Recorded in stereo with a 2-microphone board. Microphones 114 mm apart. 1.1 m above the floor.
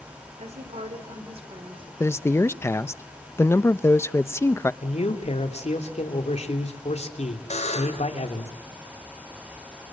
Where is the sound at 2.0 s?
25° left (ahead or behind), 0.7 m.